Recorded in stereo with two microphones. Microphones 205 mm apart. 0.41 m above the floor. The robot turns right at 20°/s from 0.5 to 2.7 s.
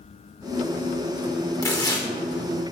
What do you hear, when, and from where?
1.6 s tearing paper: 20° left (ahead or behind), 1.6 m